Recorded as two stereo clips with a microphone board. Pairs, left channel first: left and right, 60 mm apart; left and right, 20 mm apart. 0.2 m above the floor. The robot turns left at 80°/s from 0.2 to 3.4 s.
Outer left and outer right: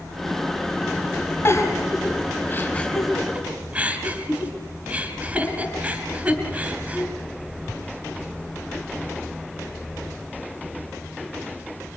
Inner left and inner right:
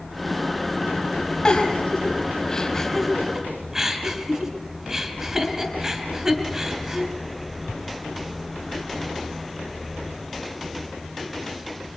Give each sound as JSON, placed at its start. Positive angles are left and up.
{"t": 1.4, "sound": "a giggle", "side_deg": 40, "distance_m": 3.0}